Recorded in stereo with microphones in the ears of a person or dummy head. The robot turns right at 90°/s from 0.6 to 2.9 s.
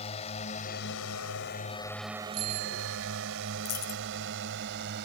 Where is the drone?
30° left (ahead or behind); by 5.1 s 65° right (ahead or behind).